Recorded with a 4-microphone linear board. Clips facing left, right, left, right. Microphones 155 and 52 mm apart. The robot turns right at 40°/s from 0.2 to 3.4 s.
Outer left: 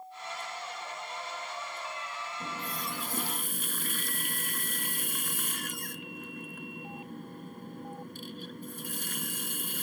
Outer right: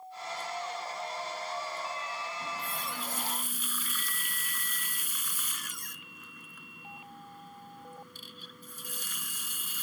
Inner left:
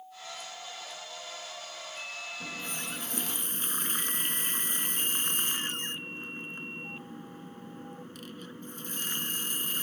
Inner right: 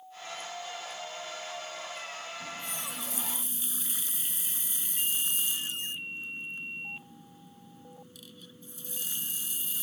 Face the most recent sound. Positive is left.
turn(degrees=90)